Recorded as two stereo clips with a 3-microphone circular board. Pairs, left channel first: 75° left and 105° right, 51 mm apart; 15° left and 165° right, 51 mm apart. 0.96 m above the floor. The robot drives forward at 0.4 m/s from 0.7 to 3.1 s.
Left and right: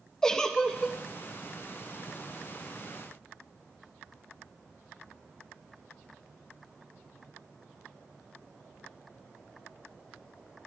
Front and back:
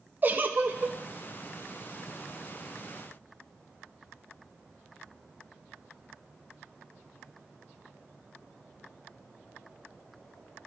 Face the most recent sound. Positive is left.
turn(degrees=165)